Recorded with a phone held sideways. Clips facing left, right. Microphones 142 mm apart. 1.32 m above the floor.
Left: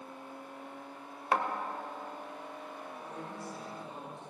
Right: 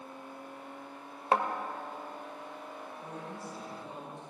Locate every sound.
1.3 s a thud: 30° right (ahead or behind), 1.2 m
3.0 s a man speaking: 5° right (ahead or behind), 6 m